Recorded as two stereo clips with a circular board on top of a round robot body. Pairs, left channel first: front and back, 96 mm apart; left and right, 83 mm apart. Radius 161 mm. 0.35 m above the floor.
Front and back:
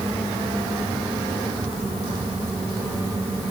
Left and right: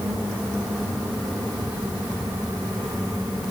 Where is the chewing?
I don't hear chewing.